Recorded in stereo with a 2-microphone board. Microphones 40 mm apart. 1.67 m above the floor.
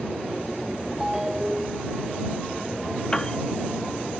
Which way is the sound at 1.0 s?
10° right (ahead or behind).